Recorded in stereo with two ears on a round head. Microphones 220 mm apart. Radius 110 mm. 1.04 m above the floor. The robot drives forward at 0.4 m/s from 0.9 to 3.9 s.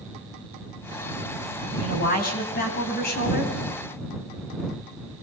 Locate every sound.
1.8 s a man speaking: 35° left (ahead or behind), 9.5 m; by 3.5 s 40° left (ahead or behind), 9 m